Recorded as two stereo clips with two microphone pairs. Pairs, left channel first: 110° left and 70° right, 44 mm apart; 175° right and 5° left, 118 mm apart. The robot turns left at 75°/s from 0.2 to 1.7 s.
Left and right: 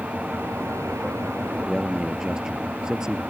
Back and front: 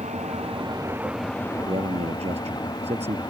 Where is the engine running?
10° right; by 3.3 s 125° right.